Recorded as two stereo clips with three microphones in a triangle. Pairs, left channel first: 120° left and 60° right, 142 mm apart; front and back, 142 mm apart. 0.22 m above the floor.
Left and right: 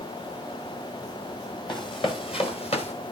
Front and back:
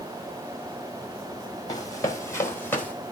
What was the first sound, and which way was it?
Running footsteps, 65° left.